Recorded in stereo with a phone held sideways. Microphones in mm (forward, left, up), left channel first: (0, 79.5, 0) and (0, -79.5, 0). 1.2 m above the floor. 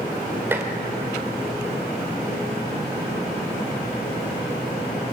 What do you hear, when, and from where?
0.5 s dishes clattering: 15° right (ahead or behind), 3 m